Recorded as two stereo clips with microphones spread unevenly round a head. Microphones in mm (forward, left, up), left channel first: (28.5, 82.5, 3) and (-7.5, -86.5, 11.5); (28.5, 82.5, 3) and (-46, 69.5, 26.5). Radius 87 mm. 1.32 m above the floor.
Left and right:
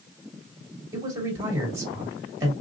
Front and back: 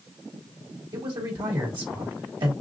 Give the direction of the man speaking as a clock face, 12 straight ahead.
6 o'clock.